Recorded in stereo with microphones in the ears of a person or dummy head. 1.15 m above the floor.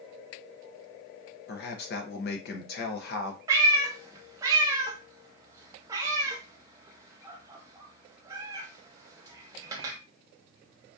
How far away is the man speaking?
About 0.6 m.